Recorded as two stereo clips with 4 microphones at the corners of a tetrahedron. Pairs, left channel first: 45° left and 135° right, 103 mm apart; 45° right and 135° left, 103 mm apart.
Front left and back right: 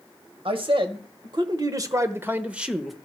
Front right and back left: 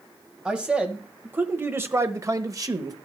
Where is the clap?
No clap in this recording.